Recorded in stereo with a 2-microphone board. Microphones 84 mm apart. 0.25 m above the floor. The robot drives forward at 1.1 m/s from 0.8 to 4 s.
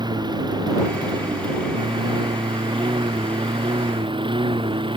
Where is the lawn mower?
60° right (ahead or behind); by 5.0 s 90° right.